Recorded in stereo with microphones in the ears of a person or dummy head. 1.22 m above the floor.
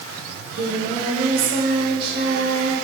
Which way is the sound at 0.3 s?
65° right (ahead or behind).